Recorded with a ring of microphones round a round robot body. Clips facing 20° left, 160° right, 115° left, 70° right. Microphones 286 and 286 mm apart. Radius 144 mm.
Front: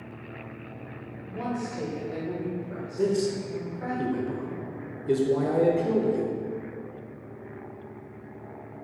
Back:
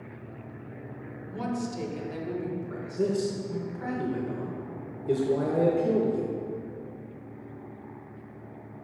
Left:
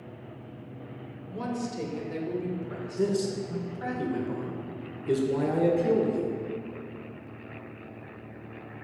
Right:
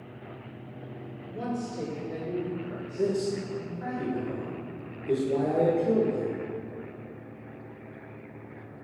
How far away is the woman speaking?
About 1.2 m.